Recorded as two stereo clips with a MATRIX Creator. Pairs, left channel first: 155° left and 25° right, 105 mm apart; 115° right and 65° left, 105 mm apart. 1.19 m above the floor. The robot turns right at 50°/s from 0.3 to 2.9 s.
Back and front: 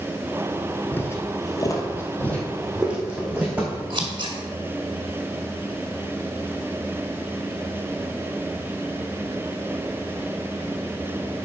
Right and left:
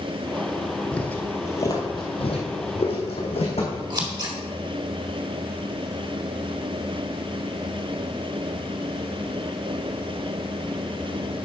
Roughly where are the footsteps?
Behind.